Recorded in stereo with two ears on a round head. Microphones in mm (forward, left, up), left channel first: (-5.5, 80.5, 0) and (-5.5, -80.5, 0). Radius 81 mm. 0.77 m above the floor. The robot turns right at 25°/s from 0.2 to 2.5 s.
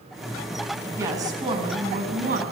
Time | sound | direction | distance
1.0 | a woman speaking | 165° right | 6 m